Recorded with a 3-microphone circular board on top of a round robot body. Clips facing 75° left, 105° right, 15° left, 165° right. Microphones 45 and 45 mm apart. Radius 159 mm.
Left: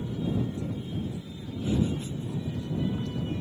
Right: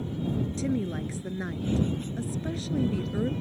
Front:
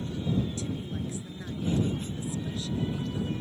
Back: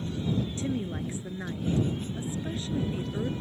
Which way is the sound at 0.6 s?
105° right.